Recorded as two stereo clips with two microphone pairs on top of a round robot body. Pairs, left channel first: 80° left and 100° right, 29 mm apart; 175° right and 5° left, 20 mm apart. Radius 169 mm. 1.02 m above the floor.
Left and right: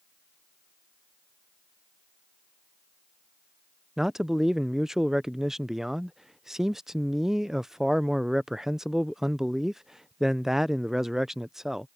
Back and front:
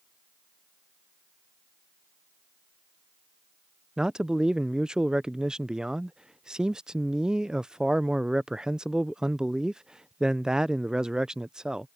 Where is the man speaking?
20° right.